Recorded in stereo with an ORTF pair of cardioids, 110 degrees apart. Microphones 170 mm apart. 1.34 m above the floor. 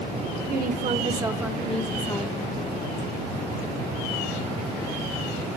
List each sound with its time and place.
0.5 s a woman speaking: 60° right, 1.2 m; by 2.5 s 25° left, 2 m